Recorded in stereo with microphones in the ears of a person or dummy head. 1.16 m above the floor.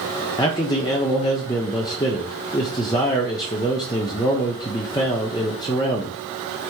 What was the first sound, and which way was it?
A man speaking, 20° left (ahead or behind).